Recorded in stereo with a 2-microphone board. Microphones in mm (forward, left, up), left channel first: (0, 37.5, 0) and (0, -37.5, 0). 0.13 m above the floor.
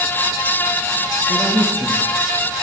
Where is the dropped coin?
No dropped coin in this recording.